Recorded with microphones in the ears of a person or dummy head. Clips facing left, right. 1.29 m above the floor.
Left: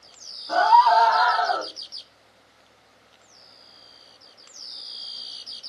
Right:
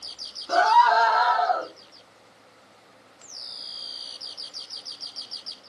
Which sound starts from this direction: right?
A scream, at 0.5 s.